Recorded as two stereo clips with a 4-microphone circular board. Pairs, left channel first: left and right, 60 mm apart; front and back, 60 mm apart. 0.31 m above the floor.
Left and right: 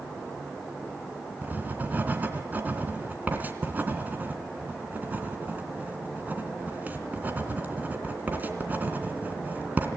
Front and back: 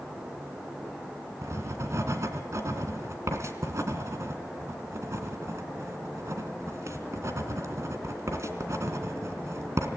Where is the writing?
150° right, 2.5 m.